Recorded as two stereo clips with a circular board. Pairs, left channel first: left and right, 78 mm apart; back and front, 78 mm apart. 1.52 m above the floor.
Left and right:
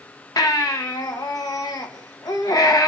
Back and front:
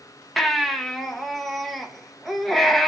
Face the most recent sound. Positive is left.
turn(degrees=90)